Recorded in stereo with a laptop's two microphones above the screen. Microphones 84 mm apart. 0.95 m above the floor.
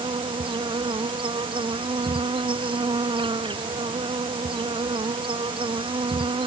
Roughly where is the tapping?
I don't hear tapping.